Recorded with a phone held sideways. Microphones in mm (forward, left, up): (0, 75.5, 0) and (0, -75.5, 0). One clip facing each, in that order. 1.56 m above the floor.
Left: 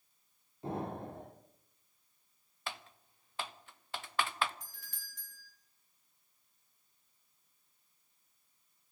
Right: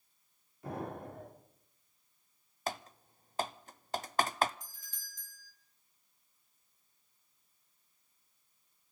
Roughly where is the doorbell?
Left.